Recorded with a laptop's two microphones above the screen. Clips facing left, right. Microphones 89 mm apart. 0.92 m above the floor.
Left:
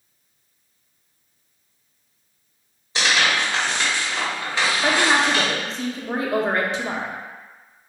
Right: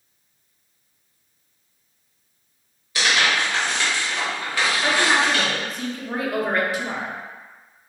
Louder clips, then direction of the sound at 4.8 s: Left 1 dB; 25° left (ahead or behind).